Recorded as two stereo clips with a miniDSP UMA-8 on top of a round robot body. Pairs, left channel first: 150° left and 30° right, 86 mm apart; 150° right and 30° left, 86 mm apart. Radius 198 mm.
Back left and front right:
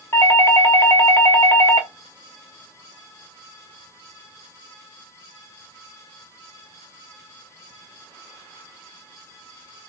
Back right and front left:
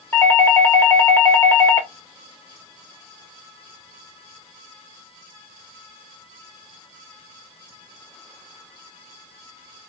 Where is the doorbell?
175° left, 1.5 m.